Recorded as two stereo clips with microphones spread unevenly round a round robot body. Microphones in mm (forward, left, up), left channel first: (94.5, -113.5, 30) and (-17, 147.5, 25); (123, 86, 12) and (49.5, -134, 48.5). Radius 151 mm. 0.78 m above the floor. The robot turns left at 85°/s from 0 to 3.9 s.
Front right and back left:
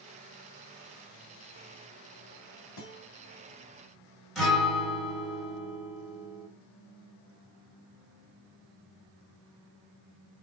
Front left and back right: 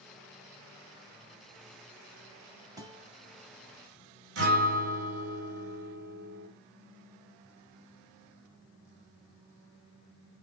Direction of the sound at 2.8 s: 35° right.